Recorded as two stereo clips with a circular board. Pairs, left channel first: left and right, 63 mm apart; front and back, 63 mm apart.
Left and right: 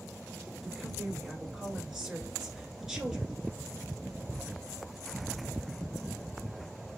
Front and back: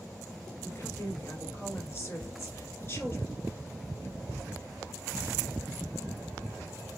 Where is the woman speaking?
10° right, 1.5 m.